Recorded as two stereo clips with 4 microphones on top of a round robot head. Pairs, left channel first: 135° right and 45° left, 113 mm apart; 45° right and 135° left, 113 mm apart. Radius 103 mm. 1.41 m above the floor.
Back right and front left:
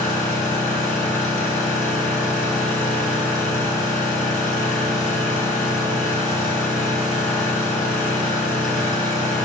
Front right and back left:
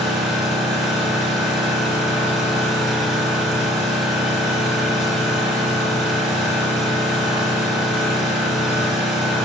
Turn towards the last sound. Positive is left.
turn(degrees=-145)